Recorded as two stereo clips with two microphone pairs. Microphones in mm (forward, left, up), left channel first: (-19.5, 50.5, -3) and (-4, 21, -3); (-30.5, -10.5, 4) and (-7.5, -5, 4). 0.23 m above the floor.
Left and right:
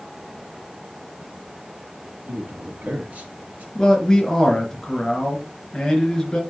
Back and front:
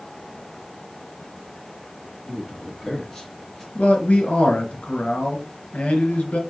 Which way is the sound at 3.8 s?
170° right.